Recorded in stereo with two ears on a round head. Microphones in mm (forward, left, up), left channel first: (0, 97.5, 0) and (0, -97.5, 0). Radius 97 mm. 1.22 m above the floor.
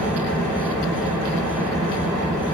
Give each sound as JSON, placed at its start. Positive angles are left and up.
{"t": 0.0, "sound": "an engine running", "side_deg": 5, "distance_m": 3.0}